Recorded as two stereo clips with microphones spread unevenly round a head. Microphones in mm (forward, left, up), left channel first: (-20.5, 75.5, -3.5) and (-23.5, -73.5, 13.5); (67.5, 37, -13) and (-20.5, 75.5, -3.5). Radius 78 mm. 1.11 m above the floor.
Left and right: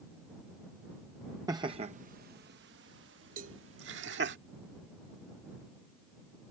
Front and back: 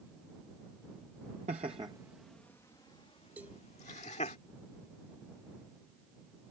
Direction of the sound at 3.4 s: 125° right.